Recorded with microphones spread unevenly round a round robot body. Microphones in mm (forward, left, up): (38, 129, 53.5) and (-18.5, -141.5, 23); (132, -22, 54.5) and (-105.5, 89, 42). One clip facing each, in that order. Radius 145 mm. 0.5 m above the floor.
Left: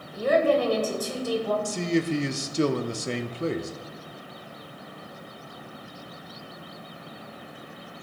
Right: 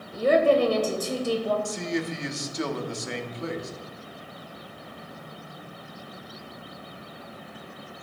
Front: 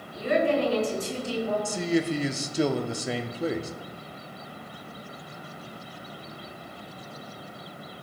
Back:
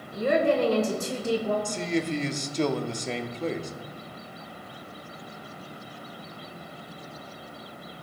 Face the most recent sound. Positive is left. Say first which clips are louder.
# left 4 dB, front 2 dB
turn(degrees=55)